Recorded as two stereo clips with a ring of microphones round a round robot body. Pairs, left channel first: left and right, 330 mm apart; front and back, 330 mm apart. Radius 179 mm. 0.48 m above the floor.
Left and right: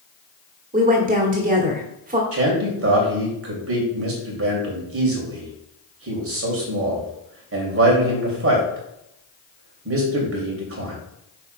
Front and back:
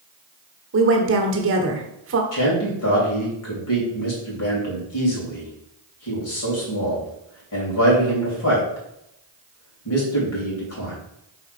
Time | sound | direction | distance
0.7 | a woman speaking | 145° right | 1.3 m
2.3 | a man speaking | 45° right | 3 m